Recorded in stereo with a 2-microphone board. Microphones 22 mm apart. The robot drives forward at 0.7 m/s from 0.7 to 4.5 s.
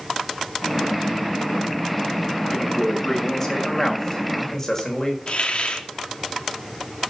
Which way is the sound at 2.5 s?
15° left (ahead or behind).